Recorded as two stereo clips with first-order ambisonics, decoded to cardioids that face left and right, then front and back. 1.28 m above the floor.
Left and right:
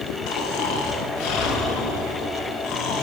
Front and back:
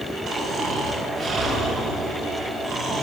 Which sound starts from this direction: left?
Snoring, at 0.3 s.